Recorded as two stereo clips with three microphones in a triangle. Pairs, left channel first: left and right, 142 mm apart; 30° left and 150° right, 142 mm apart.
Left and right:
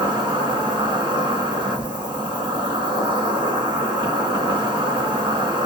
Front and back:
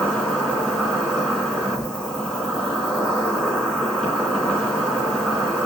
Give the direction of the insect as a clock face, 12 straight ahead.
2 o'clock.